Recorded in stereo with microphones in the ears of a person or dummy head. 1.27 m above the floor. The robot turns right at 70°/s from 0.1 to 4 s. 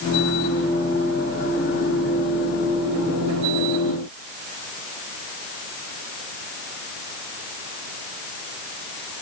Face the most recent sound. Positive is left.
No sound to turn to.